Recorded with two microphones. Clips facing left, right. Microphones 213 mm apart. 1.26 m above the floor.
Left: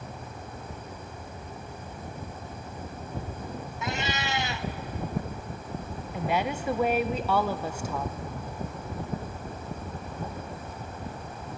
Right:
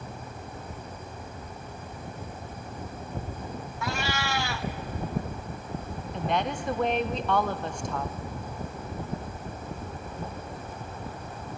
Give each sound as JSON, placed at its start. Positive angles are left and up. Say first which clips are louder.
{"t": 3.8, "sound": "a cat meowing", "louder": "right 1 dB", "side_deg": 20, "distance_m": 0.5}
{"t": 6.1, "sound": "a woman speaking", "louder": "even", "side_deg": 5, "distance_m": 0.8}